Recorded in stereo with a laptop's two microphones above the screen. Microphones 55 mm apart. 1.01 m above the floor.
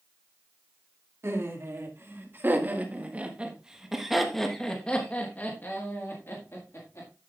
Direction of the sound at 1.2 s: 50° right (ahead or behind).